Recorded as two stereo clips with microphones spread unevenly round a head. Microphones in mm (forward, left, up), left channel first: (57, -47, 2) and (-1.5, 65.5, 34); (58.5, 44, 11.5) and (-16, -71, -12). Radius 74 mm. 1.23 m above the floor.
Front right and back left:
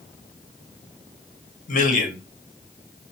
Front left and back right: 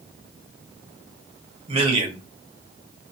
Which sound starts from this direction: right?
A man speaking, at 1.7 s.